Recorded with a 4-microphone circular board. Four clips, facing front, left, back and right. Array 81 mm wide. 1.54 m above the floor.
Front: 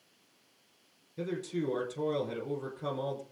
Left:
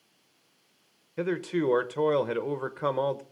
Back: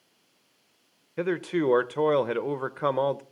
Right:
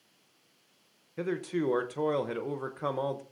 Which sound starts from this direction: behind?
A man speaking, at 1.2 s.